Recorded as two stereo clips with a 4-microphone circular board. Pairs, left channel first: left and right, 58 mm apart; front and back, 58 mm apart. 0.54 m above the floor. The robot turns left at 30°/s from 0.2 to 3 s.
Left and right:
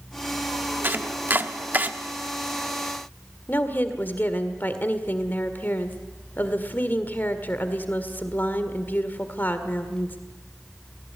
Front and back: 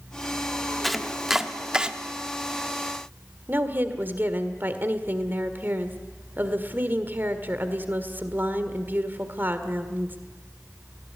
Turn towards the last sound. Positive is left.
turn(degrees=135)